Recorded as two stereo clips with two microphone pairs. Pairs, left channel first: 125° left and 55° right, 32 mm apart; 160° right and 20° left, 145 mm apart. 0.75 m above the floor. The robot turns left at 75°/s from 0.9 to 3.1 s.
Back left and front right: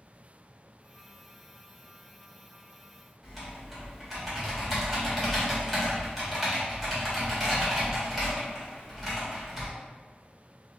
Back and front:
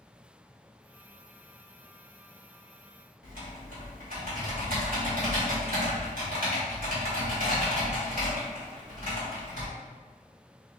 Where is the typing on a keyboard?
30° left, 1.9 m.